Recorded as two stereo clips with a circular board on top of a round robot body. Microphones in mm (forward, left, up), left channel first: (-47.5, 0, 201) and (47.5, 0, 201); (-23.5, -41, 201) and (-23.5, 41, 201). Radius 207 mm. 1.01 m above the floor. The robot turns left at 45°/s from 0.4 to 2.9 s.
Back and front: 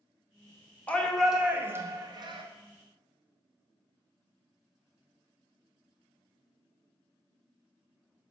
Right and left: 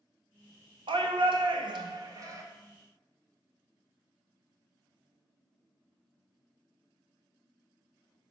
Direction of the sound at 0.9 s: 105° left.